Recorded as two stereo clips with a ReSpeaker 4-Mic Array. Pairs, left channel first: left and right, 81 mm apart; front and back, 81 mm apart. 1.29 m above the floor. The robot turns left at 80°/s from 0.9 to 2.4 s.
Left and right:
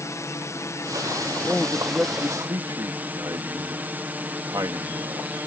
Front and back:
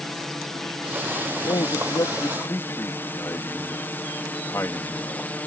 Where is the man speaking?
25° left; by 5.3 s 55° right.